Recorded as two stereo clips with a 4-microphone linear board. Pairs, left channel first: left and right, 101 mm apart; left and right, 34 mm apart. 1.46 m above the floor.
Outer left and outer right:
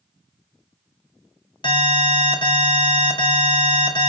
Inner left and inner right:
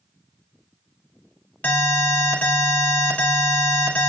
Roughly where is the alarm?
Left.